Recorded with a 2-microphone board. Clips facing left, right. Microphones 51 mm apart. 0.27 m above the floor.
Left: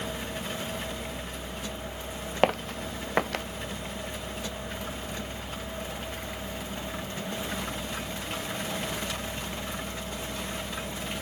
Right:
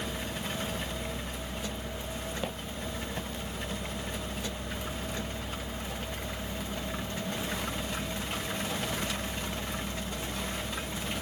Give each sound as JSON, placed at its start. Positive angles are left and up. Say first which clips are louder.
{"t": 2.4, "sound": "footsteps", "louder": "left 10 dB", "side_deg": 70}